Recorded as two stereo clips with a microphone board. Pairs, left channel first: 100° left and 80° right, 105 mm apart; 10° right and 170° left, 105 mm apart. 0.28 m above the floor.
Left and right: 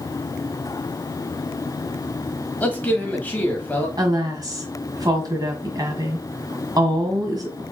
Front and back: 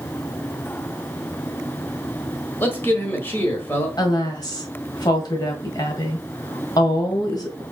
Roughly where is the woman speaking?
Ahead right.